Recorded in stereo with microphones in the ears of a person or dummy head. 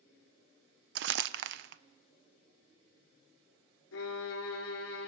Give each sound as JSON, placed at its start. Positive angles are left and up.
{"t": 0.9, "sound": "crumpling", "side_deg": -60, "distance_m": 0.5}
{"t": 3.9, "sound": "a violin", "side_deg": 75, "distance_m": 3.0}